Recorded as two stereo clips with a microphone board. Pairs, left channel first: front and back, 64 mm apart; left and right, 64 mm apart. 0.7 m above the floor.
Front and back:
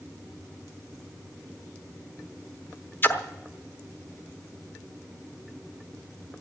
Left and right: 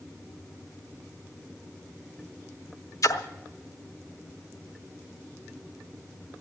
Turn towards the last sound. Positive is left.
turn(degrees=60)